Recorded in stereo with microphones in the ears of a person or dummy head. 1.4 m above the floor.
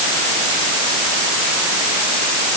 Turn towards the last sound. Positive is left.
No sound to turn to.